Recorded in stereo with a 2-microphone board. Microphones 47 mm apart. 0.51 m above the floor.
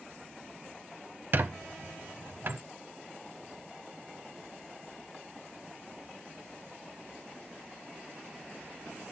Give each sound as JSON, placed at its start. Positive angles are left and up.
{"t": 1.3, "sound": "a squeak", "side_deg": -50, "distance_m": 0.6}